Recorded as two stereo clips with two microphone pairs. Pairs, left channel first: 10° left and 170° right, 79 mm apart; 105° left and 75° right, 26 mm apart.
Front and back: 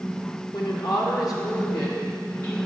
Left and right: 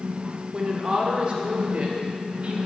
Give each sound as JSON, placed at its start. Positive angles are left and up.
{"t": 0.5, "sound": "a woman speaking", "azimuth_deg": -5, "distance_m": 1.3}